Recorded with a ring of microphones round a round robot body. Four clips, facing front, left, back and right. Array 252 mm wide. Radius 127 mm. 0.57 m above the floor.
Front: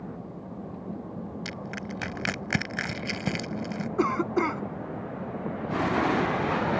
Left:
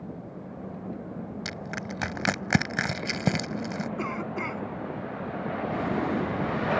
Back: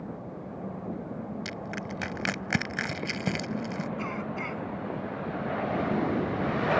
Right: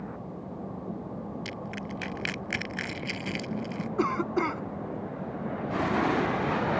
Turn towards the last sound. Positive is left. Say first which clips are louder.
# right 5 dB, front 9 dB
turn(degrees=-25)